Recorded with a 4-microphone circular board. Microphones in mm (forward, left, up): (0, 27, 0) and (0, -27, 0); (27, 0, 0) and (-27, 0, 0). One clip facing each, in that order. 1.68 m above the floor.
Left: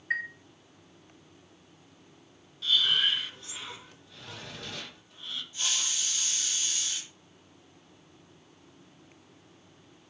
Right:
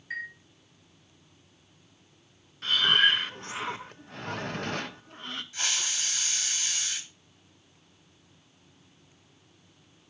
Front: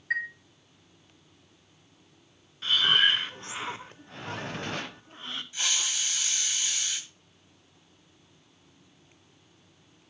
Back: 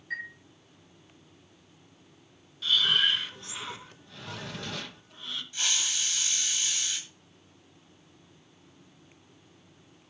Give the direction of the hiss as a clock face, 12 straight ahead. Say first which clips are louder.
Right 2 dB, even; 2 o'clock.